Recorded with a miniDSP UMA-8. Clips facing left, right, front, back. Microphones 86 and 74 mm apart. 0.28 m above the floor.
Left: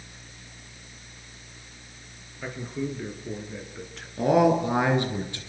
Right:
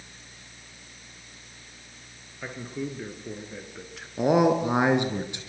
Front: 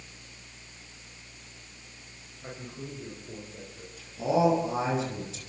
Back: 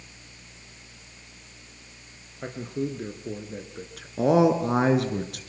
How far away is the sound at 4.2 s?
About 3.5 m.